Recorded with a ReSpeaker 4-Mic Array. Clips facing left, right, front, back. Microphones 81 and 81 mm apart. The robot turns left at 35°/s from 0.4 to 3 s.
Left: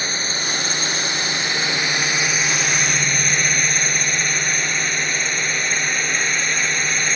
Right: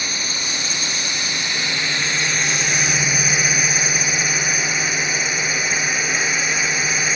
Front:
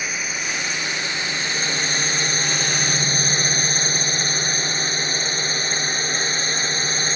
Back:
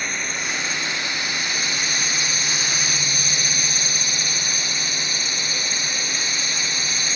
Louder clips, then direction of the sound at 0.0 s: Left 2 dB, even; 80° left.